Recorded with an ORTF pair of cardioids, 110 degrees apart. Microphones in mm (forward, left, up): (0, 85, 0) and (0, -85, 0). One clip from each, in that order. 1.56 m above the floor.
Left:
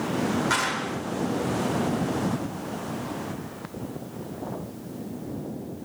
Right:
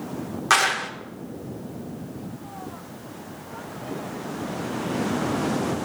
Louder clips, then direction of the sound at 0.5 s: Right 10 dB; 50° right.